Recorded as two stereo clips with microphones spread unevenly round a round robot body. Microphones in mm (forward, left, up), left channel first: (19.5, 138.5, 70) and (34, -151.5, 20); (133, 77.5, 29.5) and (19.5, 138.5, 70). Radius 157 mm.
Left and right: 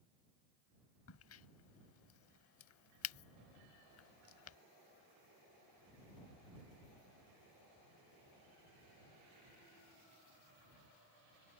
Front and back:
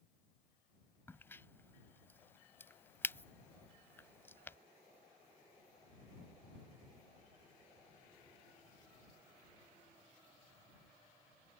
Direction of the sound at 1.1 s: 55° left.